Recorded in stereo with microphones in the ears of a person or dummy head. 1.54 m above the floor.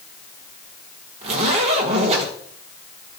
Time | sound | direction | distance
1.2 | a zipper | 35° right (ahead or behind) | 1.8 m